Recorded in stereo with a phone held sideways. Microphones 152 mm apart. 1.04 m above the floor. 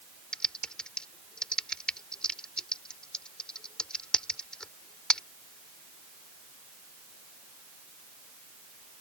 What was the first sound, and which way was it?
Typing on a keyboard, 5° left (ahead or behind).